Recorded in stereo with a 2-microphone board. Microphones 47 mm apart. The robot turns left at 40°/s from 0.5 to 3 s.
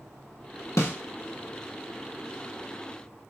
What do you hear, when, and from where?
0.8 s a snare drum: 70° left (ahead or behind), 0.7 m; by 0.9 s 65° left (ahead or behind), 0.7 m